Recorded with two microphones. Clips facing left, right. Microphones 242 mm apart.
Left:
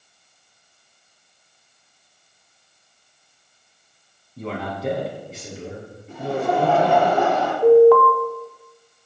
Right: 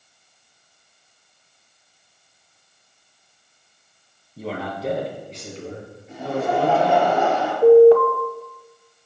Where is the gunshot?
No gunshot in this recording.